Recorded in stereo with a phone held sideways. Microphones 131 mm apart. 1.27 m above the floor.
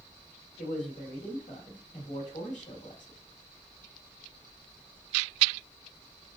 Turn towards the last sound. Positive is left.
turn(degrees=70)  # may be behind; listen again after turning